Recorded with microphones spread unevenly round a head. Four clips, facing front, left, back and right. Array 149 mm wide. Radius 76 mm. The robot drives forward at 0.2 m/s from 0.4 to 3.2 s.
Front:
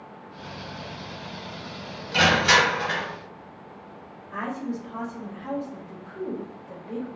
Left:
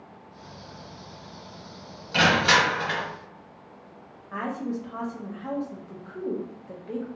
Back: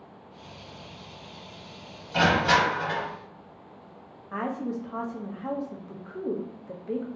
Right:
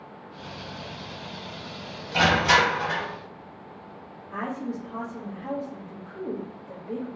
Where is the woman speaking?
170° left, 0.5 m.